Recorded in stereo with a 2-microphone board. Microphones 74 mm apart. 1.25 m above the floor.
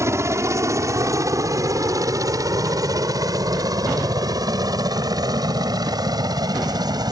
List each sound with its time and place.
0.0 s a helicopter: 40° right (ahead or behind); by 7.1 s 65° right (ahead or behind)